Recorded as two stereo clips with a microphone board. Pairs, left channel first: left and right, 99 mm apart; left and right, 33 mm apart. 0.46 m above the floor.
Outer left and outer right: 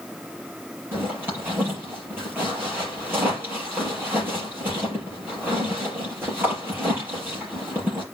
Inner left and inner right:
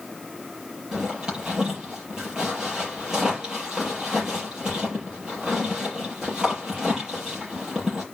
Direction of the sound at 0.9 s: 20° right (ahead or behind).